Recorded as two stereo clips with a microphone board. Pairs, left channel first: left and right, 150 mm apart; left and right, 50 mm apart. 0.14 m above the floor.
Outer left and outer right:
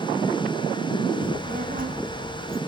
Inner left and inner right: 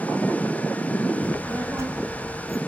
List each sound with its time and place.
1.2 s a child speaking: 60° right (ahead or behind), 6 m; by 2.6 s 65° right (ahead or behind), 6 m